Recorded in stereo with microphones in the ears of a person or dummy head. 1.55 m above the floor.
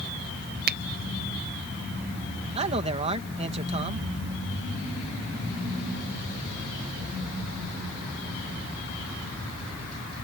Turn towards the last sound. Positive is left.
turn(degrees=-35)  # may be behind; listen again after turning